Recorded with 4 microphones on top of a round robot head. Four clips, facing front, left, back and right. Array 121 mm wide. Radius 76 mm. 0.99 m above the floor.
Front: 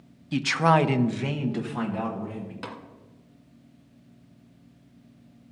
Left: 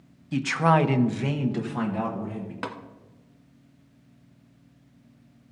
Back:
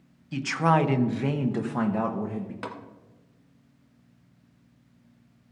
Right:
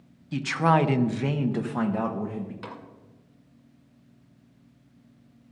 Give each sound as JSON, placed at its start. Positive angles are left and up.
{"t": 0.3, "sound": "a man speaking", "azimuth_deg": 20, "distance_m": 0.9}
{"t": 2.6, "sound": "tapping", "azimuth_deg": 100, "distance_m": 1.5}